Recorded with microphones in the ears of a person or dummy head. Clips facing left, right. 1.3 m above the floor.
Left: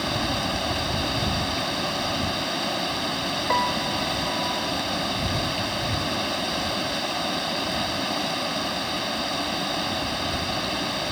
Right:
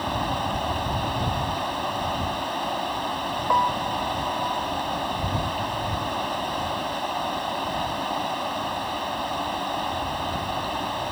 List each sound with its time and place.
0.0 s running water: 35° left (ahead or behind)
3.5 s a piano: 30° left (ahead or behind)